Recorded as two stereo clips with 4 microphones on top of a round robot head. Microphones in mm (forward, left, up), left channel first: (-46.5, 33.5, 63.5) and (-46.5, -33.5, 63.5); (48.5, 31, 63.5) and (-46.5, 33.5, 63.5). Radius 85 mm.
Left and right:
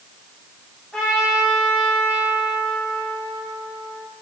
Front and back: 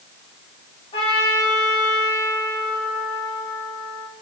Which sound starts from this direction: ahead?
A trumpet, at 0.9 s.